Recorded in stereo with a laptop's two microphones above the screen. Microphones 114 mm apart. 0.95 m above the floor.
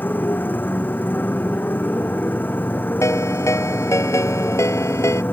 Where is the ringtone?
25° left (ahead or behind).